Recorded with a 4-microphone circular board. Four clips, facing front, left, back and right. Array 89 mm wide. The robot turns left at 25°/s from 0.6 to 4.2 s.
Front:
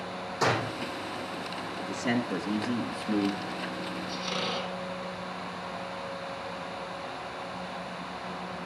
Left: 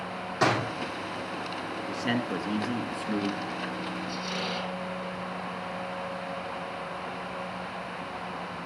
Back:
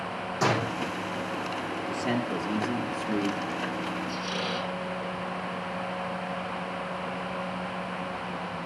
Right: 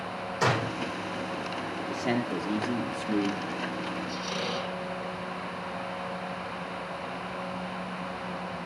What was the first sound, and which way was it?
A door slam, 105° left.